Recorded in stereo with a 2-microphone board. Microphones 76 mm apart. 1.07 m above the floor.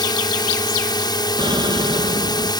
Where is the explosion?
80° right.